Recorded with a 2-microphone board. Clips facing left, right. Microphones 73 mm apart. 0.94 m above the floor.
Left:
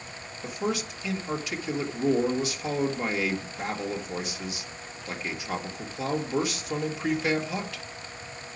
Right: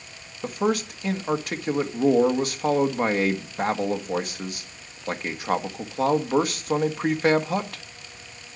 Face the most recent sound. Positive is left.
turn(degrees=-55)  # may be behind; listen again after turning